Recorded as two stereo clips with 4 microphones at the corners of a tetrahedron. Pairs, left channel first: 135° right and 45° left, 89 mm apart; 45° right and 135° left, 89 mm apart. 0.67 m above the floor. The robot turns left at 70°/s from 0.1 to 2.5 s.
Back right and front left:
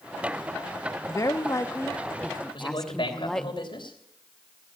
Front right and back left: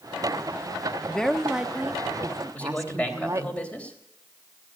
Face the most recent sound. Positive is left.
turn(degrees=-120)